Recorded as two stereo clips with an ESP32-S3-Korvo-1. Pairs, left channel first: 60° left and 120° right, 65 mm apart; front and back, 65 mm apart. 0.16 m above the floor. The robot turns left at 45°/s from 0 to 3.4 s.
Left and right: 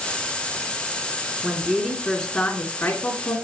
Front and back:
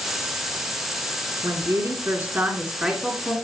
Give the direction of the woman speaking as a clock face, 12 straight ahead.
6 o'clock.